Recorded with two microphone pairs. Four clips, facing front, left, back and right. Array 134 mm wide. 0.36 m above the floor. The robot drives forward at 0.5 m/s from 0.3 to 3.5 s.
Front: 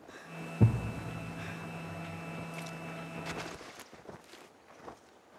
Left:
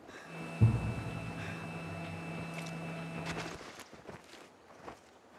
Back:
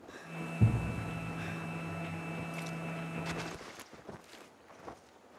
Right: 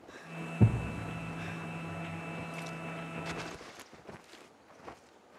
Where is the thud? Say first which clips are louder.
Right 4 dB, front 3 dB; 45° right, 0.7 m; by 0.8 s 50° right, 0.7 m.